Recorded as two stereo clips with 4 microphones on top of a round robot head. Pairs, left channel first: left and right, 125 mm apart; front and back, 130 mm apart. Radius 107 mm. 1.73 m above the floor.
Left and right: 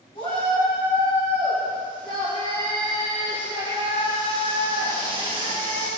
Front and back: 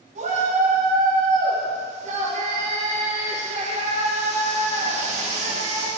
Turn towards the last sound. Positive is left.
turn(degrees=155)